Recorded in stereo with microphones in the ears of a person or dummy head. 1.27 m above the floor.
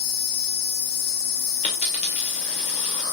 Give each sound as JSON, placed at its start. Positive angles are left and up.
{"t": 0.0, "sound": "an insect", "side_deg": 55, "distance_m": 1.0}
{"t": 1.6, "sound": "a dropped coin", "side_deg": 40, "distance_m": 1.6}